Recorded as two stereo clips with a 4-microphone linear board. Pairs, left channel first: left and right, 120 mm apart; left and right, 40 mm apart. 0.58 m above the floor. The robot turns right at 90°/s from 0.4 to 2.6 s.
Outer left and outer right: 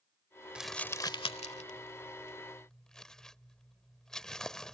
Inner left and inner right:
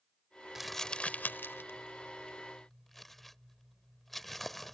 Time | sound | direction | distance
0.6 | crumpling | 10° right (ahead or behind) | ?